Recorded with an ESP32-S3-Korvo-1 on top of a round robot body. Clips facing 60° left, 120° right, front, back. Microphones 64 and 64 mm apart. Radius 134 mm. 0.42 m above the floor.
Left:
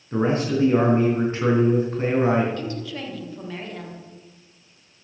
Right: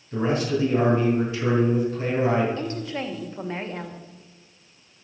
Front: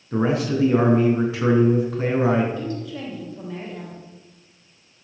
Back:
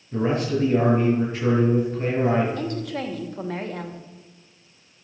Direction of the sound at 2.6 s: 175° right.